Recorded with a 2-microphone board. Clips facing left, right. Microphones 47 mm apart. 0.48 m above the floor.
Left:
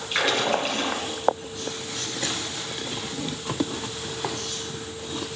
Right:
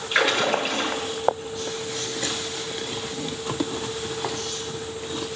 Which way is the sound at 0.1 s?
5° right (ahead or behind).